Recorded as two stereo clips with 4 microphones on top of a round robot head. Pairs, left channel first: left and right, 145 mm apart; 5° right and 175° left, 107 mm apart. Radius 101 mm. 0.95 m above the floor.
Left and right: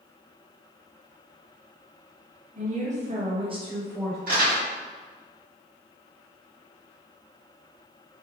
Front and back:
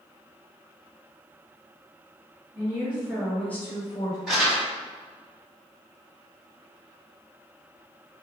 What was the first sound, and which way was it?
A woman speaking, 120° right.